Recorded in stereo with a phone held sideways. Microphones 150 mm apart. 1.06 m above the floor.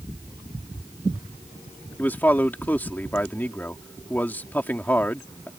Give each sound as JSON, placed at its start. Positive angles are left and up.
{"t": 2.0, "sound": "a man speaking", "side_deg": 10}